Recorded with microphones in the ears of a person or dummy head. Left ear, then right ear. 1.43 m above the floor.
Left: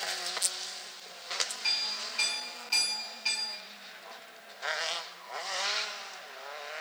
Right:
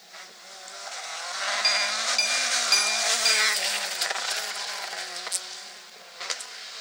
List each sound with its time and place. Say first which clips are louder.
1.6 s a clink: right 8 dB; 50° right (ahead or behind), 0.7 m